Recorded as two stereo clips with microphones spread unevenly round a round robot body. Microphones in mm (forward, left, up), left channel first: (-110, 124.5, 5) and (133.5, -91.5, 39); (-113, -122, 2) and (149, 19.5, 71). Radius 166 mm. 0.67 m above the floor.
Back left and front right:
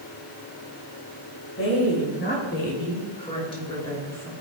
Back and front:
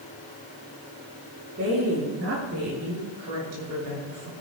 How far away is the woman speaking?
About 6 m.